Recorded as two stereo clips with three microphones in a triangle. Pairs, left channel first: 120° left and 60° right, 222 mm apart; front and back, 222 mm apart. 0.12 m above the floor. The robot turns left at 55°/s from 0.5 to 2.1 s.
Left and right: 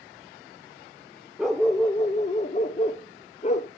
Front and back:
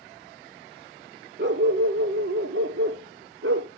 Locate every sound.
1.4 s a dog barking: 150° right, 0.9 m; by 3.7 s 175° left, 0.9 m